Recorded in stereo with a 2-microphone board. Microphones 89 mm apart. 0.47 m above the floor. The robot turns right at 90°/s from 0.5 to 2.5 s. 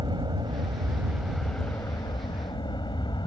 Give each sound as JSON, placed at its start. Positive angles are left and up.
{"t": 0.0, "sound": "an aircraft", "azimuth_deg": -75}